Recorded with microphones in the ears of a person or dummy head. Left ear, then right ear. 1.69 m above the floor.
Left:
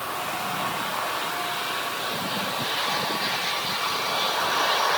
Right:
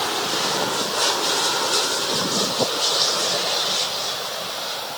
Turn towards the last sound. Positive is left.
No sound to turn to.